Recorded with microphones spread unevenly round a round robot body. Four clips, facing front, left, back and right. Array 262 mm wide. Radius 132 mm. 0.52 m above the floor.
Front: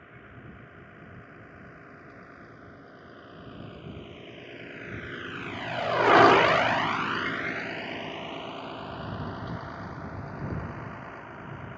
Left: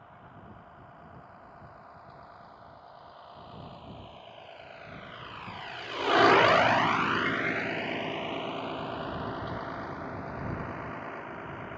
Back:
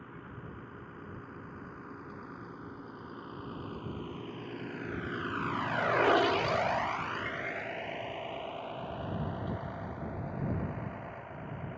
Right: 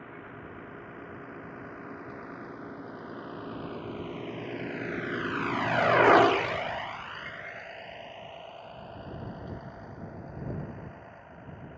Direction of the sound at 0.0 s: 100° right.